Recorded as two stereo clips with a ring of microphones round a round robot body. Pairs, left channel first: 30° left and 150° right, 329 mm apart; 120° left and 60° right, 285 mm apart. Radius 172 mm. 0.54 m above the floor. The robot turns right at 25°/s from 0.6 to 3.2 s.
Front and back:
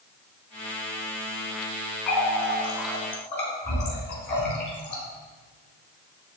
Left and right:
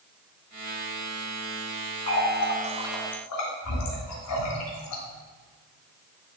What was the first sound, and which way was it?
A running tap, 65° left.